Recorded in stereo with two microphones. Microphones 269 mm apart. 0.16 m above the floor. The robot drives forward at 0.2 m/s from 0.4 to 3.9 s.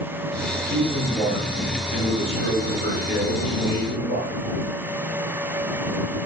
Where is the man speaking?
30° left (ahead or behind), 1.5 m.